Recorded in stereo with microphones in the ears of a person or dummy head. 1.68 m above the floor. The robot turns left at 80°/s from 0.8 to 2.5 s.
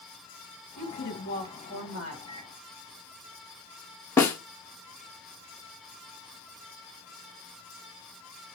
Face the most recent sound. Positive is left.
turn(degrees=10)  # may be behind; listen again after turning